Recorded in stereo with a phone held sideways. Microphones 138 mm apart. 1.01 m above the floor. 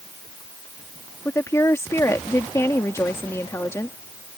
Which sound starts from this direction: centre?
A woman speaking, at 1.2 s.